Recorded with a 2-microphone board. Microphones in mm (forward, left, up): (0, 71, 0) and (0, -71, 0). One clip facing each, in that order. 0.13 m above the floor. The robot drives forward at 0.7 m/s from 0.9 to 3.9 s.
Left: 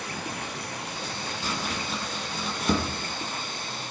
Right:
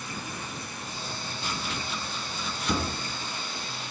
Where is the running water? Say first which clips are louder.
Left 3 dB; 70° left (ahead or behind), 1.7 m; by 3.9 s 45° left (ahead or behind), 2 m.